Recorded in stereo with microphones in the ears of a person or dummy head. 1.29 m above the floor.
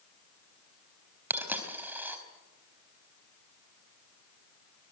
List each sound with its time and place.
1.3 s a dropped coin: 10° right (ahead or behind), 4 m